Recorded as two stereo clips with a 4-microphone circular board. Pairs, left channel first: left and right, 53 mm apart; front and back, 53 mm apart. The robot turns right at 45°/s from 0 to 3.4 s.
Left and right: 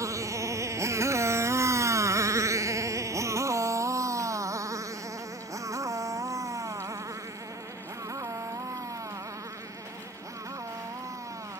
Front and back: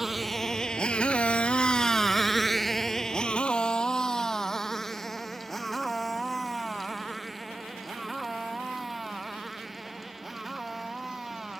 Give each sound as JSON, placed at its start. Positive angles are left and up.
{"t": 0.0, "sound": "a motorcycle", "azimuth_deg": -95}